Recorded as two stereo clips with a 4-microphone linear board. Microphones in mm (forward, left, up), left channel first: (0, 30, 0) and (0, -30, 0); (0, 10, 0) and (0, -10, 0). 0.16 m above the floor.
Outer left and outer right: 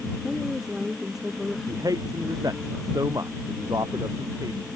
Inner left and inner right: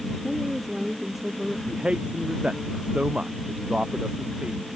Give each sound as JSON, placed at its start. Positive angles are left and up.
{"t": 0.2, "sound": "a woman speaking", "side_deg": -5}
{"t": 1.7, "sound": "a man speaking", "side_deg": -75}